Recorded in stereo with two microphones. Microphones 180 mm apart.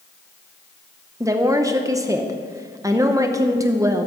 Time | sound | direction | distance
1.2 | a woman speaking | 15° right (ahead or behind) | 0.8 m